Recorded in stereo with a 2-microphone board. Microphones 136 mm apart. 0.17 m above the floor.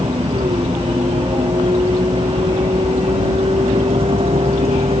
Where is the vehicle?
40° right (ahead or behind); by 5.0 s 45° right (ahead or behind).